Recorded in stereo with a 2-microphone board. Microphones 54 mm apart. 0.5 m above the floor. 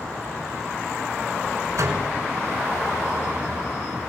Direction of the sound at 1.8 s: 80° right.